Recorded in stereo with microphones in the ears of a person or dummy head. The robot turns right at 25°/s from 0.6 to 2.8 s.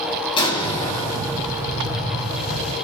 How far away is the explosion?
About 3 m.